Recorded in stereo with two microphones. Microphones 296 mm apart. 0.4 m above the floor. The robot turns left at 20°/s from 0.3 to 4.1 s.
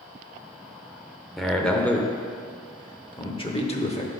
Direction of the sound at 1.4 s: Centre (ahead or behind).